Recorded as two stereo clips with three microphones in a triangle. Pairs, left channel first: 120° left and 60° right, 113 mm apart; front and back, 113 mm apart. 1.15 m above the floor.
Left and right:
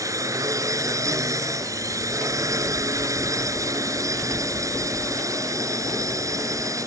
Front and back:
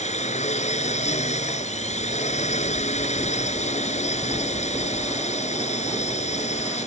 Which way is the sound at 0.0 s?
Straight ahead.